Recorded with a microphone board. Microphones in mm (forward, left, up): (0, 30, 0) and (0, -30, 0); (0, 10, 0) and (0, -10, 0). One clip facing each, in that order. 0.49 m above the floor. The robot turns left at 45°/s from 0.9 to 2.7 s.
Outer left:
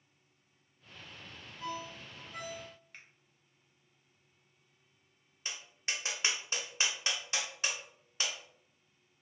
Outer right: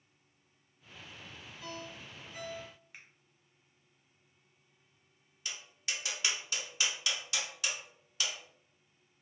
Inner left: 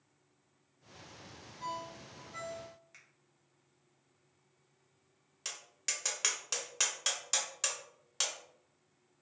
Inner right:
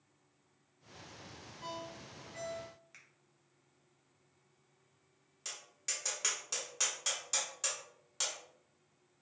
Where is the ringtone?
55° left (ahead or behind), 0.9 m; by 2.7 s 50° left (ahead or behind), 0.9 m.